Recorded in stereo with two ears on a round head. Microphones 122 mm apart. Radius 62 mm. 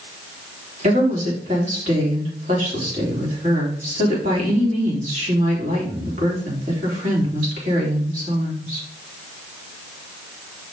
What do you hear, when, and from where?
0.8 s a woman speaking: 50° right (ahead or behind), 3.5 m